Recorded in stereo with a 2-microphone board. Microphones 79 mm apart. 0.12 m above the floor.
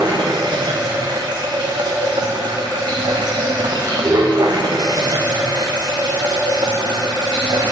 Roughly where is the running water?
Right.